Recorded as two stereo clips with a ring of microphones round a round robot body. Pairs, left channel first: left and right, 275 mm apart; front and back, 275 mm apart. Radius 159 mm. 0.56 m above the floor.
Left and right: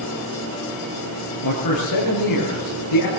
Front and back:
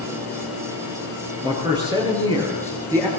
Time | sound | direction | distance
1.4 | a man speaking | 105° left | 9.5 m